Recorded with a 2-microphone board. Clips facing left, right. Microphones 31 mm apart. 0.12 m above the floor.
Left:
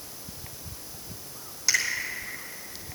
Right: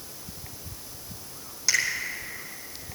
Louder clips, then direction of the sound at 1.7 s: Right 1 dB; centre (ahead or behind).